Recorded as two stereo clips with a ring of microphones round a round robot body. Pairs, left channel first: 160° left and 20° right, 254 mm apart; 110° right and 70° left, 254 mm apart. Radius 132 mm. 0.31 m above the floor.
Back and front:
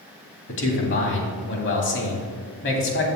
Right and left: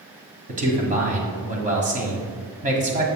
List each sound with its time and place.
0.5 s a man speaking: 125° left, 1.9 m